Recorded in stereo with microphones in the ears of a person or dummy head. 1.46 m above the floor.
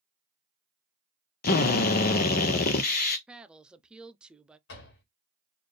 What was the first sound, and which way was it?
A drill, 45° left (ahead or behind).